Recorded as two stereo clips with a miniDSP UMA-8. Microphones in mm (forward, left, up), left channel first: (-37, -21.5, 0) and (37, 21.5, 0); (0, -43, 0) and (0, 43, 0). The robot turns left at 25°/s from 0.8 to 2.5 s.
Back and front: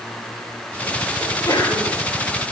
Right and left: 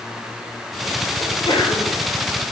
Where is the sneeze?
105° right, 6.5 m; by 2.0 s 125° right, 6.5 m.